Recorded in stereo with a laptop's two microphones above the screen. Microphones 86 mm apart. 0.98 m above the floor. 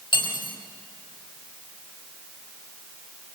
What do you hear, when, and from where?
0.1 s cutlery clinking: 75° left (ahead or behind), 3 m